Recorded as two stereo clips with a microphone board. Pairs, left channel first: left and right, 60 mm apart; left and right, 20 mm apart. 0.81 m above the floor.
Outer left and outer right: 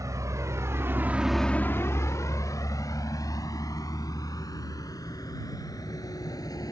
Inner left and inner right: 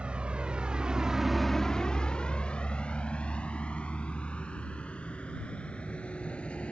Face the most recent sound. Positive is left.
turn(degrees=85)